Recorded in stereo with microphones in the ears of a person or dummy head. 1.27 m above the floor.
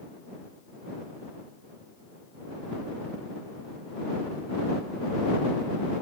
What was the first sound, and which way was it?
Only background noise.